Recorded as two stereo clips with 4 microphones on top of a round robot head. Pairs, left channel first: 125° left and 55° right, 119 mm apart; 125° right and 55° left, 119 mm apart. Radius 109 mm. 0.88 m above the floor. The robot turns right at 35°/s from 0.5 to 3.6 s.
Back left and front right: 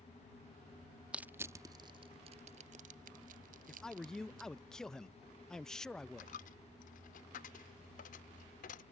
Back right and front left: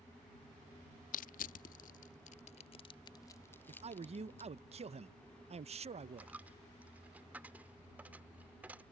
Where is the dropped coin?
135° left.